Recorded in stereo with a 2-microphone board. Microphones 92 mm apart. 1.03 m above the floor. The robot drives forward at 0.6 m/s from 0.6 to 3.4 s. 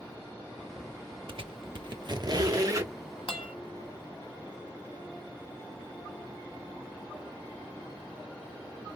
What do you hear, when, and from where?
1.3 s a squeak: 70° right (ahead or behind), 0.7 m; by 2.9 s 35° right (ahead or behind), 1.3 m
3.3 s a guitar: 75° left (ahead or behind), 1.5 m